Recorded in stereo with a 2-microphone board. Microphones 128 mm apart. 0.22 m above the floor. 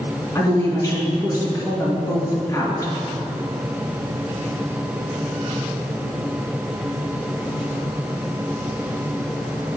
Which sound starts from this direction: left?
A woman speaking, at 0.3 s.